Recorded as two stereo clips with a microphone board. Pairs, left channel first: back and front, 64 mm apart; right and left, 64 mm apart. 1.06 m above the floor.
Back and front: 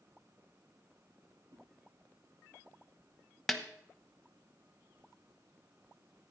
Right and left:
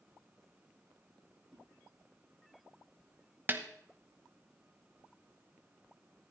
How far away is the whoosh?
About 5 m.